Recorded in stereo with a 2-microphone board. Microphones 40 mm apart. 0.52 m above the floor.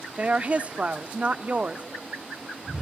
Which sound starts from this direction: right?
A woman speaking, at 0.2 s.